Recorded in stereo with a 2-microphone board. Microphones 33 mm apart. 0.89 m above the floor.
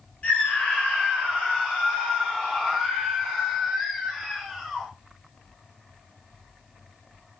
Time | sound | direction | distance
0.2 | a scream | 45° left (ahead or behind) | 3 m